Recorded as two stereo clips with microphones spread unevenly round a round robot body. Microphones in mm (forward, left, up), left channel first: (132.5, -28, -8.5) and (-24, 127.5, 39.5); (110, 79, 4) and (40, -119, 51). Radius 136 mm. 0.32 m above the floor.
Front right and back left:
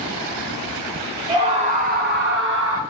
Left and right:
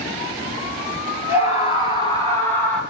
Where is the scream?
60° left, 1.3 m; by 2.8 s 140° left, 1.4 m.